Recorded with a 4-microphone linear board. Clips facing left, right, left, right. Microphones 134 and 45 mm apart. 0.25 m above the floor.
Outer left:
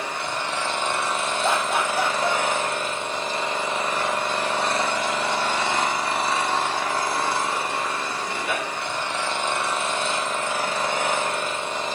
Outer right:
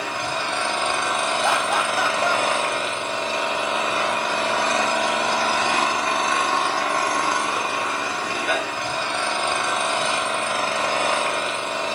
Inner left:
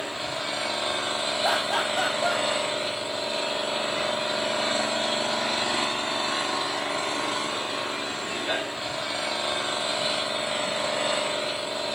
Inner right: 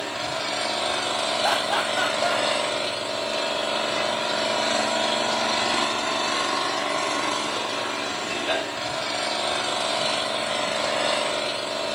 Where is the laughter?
60° right (ahead or behind), 9 m.